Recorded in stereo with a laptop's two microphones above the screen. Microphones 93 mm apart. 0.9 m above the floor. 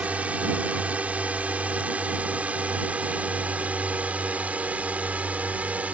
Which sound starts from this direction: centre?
A drone, at 0.0 s.